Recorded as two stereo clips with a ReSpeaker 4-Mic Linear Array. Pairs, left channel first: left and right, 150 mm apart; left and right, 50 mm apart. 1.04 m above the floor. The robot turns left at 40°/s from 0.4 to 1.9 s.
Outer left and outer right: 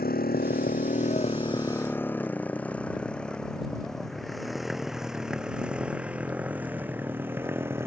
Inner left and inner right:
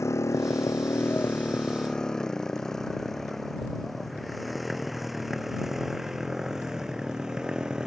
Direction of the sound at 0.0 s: 85° left.